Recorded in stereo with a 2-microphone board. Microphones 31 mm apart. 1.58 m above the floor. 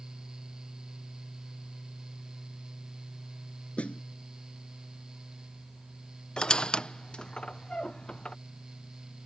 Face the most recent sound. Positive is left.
turn(degrees=35)  # may be behind; listen again after turning